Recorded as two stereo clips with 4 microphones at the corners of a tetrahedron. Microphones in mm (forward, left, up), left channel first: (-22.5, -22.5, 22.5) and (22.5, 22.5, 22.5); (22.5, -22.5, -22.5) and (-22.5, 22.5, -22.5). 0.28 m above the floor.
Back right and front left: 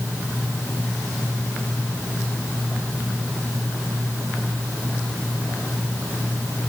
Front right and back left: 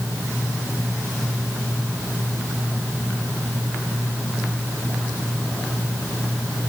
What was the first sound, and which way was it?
Only background noise.